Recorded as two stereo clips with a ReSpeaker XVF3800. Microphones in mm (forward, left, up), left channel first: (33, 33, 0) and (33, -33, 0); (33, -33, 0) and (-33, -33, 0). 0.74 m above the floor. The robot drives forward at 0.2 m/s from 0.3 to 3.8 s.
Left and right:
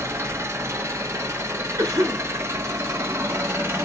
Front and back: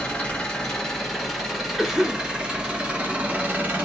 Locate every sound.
0.0 s an engine running: 70° right, 1.0 m; by 3.9 s 125° right, 1.1 m
1.8 s a cough: 90° right, 1.3 m; by 2.3 s 95° right, 1.3 m